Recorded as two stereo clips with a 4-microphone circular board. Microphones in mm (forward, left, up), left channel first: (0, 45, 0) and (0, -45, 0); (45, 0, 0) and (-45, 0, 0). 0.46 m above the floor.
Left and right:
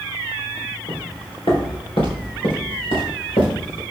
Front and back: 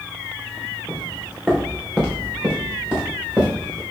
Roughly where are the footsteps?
Left.